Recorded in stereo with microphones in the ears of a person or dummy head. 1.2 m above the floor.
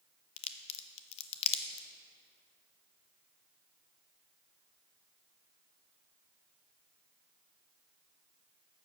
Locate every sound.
0.4 s a crack: 35° left (ahead or behind), 0.6 m